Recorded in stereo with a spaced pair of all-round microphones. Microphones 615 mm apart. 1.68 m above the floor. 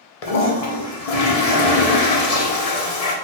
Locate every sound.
0.2 s a toilet flushing: 80° left, 0.8 m